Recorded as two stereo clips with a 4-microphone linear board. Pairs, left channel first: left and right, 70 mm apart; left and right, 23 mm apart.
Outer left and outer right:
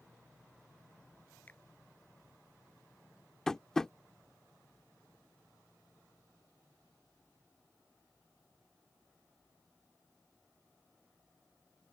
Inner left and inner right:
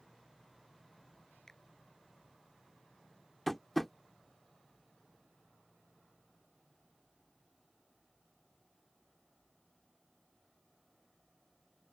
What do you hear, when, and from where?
1.5 s a finger snap: 25° left (ahead or behind)
3.5 s tapping: 10° left (ahead or behind)